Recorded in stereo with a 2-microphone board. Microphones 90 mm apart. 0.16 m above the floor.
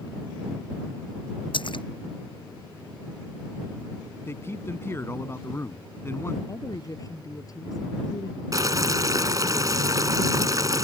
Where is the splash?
65° left (ahead or behind).